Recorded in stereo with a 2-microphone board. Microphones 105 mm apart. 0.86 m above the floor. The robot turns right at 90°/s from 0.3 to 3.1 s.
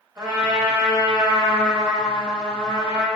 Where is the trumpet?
140° right, 1.0 m; by 3.1 s 110° left, 1.0 m.